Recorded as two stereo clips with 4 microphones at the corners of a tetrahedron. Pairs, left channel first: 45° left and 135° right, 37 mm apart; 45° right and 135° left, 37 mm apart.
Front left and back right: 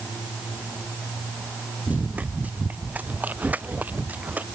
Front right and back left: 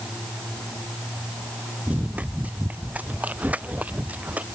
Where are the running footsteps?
Straight behind.